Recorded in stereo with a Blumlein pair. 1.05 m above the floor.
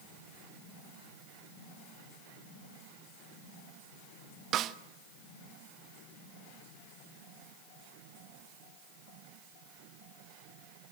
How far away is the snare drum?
About 0.6 m.